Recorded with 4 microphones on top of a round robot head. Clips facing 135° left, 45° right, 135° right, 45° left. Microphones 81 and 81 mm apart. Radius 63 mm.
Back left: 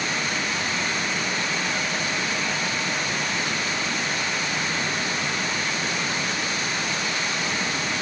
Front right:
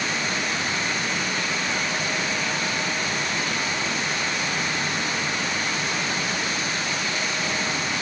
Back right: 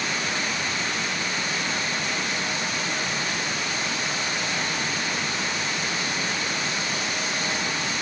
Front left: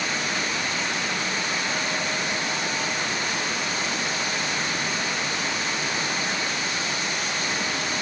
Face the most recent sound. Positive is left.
No sound to turn to.